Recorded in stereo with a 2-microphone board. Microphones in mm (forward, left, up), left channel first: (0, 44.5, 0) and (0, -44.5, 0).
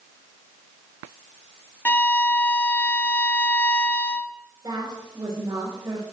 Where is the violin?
20° left (ahead or behind), 0.7 m.